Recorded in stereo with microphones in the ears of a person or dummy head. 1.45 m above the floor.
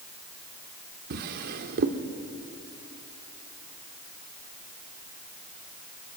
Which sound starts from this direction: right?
A drawer, at 1.1 s.